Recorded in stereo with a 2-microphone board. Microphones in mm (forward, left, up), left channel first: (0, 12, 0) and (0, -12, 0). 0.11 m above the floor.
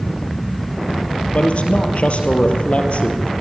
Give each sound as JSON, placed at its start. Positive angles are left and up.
{"t": 1.3, "sound": "a man speaking", "side_deg": 60, "distance_m": 2.5}